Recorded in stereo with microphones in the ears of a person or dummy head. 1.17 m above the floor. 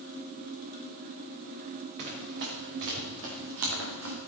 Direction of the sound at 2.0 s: 60° right (ahead or behind).